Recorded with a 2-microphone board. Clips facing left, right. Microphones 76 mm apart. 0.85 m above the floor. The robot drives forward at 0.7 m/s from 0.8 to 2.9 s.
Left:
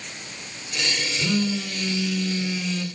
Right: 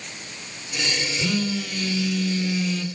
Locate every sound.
1.2 s a phone buzzing: 5° left (ahead or behind), 2.5 m